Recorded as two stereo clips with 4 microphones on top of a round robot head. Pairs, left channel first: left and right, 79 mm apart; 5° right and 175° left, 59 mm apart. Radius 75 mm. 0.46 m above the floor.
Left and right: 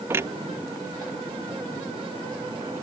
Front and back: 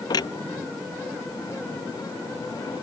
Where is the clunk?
25° right.